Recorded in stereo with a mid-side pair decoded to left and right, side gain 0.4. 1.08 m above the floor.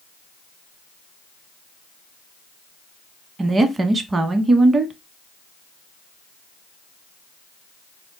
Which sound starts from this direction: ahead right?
A woman speaking, at 3.4 s.